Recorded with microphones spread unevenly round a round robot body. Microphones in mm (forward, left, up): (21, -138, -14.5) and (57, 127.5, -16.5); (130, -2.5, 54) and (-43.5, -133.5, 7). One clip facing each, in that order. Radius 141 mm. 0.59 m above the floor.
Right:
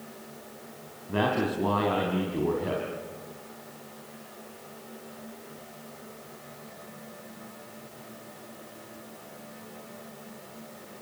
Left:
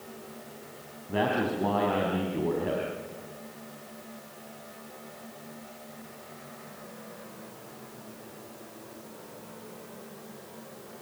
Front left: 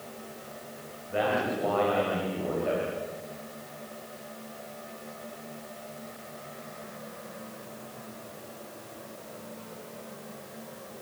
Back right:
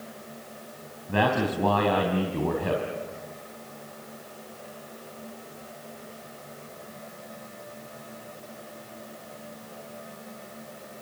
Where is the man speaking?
Straight behind, 4 m.